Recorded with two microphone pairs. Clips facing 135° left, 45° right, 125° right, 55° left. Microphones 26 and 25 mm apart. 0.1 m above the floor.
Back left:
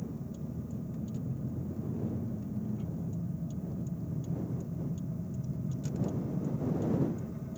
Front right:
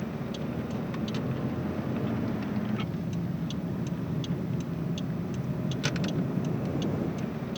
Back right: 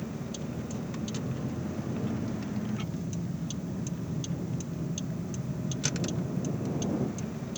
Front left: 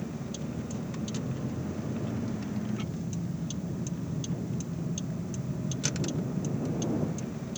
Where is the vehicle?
40° right.